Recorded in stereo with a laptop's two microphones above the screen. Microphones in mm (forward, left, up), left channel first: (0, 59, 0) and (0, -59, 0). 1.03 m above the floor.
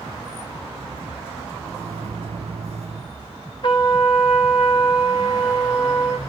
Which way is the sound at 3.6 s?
45° left (ahead or behind).